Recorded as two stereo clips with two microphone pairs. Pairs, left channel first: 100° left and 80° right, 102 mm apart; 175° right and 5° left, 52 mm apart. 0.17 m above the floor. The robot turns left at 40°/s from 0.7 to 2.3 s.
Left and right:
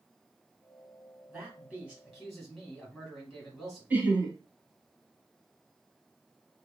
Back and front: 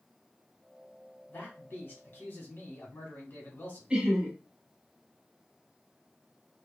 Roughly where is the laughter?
Ahead right.